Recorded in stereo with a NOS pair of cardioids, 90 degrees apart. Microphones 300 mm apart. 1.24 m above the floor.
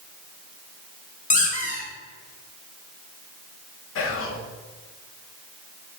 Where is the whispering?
45° left, 0.9 m.